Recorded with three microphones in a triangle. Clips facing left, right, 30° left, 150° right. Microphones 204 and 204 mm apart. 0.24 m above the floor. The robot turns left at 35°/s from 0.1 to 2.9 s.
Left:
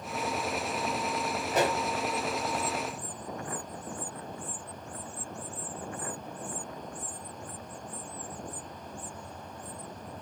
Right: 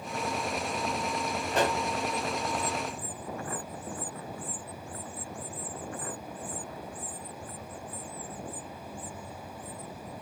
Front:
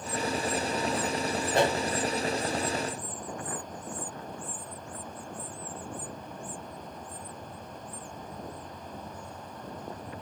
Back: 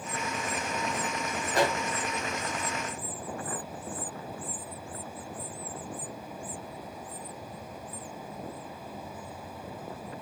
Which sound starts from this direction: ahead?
A pop, at 1.5 s.